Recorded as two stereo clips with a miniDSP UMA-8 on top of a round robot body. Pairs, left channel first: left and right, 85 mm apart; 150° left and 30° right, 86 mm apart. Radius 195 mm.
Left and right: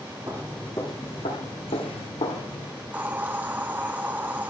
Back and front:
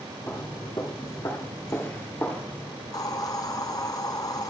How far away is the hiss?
About 0.7 m.